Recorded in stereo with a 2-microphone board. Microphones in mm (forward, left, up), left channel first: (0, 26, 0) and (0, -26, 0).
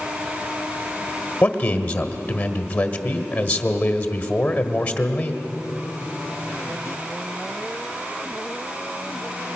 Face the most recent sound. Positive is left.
turn(degrees=25)  # may be behind; listen again after turning